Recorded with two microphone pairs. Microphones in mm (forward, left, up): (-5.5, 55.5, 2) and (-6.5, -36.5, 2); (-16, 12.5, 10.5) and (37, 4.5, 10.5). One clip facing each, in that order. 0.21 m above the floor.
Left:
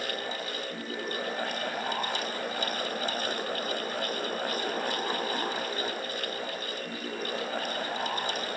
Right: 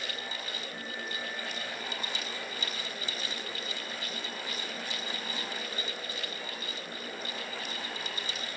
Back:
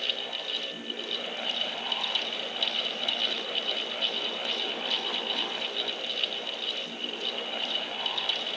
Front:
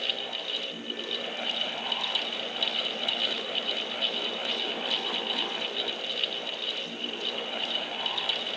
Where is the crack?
No crack in this recording.